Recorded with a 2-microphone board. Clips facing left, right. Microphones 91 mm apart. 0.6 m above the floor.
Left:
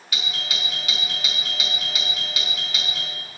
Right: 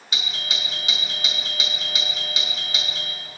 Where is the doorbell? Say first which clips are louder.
Even; 20° right (ahead or behind), 1.1 m.